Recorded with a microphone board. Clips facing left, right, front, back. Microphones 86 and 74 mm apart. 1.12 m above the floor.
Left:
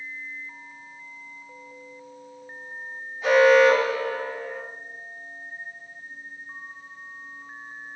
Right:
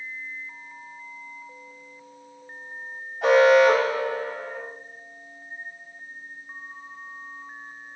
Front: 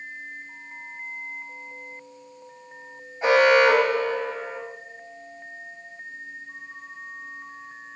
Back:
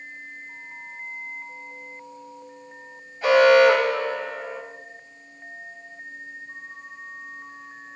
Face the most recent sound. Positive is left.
turn(degrees=-65)